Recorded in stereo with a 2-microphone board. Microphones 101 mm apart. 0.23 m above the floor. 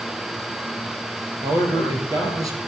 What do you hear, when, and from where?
1.4 s a man speaking: 40° right (ahead or behind), 4.5 m; by 2.6 s 35° right (ahead or behind), 3.5 m